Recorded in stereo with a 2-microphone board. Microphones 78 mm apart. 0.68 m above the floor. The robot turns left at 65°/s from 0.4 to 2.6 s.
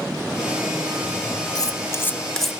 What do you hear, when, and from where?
1.6 s cutlery clinking: 60° left (ahead or behind), 0.7 m; by 2.5 s centre (ahead or behind), 0.7 m